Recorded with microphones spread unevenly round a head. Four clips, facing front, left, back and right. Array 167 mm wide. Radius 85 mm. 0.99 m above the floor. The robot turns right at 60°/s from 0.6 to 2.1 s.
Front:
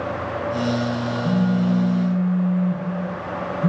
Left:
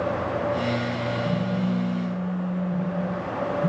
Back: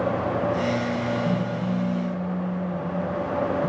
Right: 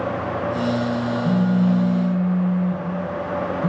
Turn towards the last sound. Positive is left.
turn(degrees=0)